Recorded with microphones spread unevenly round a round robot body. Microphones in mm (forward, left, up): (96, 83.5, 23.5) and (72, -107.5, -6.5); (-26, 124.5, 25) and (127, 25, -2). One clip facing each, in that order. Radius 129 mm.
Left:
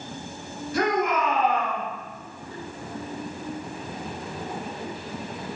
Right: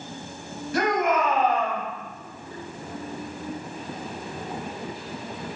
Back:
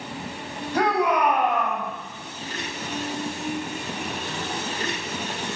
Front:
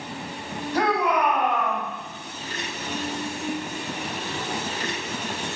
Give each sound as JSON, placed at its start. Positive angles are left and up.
{"t": 0.7, "sound": "a shout", "azimuth_deg": -125, "distance_m": 2.5}